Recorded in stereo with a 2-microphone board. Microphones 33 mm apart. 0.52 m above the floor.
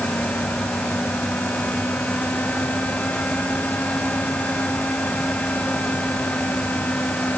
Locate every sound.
Only background noise.